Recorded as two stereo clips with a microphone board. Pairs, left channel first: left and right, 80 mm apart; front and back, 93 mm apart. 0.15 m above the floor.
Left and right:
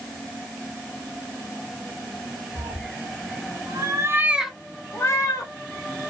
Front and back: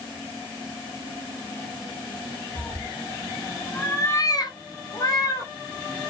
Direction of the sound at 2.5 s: 85° right.